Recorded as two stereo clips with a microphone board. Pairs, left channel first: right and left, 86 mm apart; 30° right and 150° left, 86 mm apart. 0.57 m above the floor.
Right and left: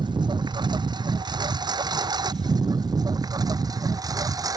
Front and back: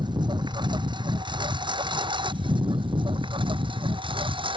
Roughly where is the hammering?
No hammering in this recording.